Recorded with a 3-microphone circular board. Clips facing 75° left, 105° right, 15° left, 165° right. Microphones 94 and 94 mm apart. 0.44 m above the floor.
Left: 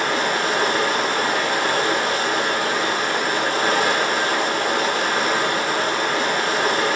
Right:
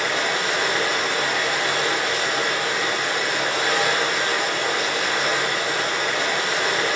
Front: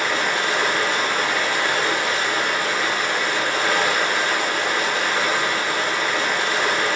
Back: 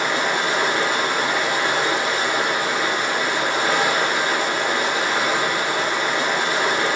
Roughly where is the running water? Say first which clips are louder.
Left 3 dB, back 1 dB; behind left.